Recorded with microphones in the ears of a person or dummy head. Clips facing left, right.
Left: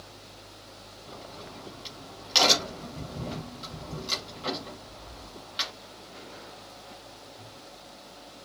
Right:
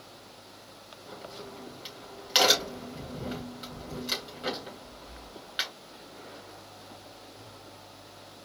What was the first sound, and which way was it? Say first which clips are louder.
A crack: right 1 dB; 15° right (ahead or behind).